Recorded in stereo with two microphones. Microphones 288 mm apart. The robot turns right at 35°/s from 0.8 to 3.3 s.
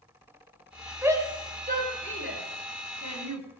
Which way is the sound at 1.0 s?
5° right (ahead or behind).